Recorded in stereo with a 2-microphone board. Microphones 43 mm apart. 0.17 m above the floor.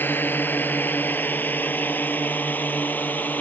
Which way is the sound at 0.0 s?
50° left (ahead or behind).